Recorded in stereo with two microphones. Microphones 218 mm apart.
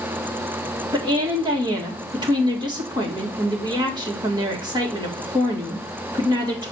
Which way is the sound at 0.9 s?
20° right (ahead or behind).